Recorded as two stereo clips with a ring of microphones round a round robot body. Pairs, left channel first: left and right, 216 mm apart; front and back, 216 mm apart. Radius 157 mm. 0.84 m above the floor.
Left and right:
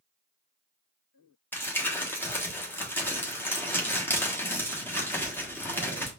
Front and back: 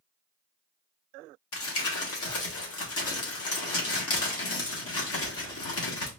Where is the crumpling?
10° left, 1.3 m.